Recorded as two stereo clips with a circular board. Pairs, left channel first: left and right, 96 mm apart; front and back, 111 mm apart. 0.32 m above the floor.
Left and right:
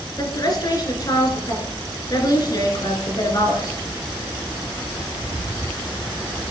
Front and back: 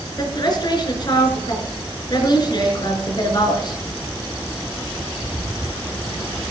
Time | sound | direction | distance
0.2 | a woman speaking | 45° left | 3.5 m